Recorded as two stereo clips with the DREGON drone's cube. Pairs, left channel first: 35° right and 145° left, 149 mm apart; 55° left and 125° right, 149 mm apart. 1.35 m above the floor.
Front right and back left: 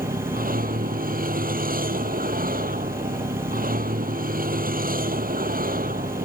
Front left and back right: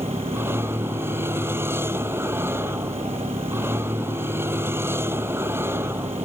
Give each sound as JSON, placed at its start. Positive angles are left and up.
{"t": 0.0, "sound": "a vehicle", "azimuth_deg": 160}